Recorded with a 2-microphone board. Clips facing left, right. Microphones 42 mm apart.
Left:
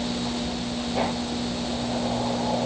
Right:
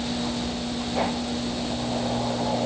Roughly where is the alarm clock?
No alarm clock in this recording.